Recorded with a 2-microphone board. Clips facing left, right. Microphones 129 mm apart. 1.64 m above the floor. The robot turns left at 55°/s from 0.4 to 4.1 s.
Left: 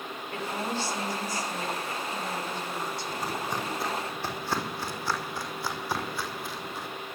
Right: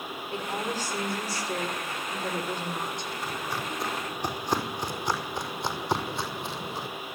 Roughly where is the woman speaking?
Ahead.